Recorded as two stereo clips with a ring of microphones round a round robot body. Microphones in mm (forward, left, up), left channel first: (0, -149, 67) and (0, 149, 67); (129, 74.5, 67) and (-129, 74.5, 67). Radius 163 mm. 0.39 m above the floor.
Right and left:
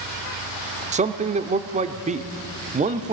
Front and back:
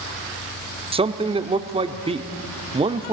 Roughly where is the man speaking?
Behind left.